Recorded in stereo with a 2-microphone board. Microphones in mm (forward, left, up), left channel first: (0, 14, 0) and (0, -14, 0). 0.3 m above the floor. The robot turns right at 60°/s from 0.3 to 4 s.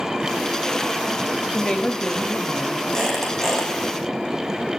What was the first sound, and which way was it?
A woman speaking, 110° left.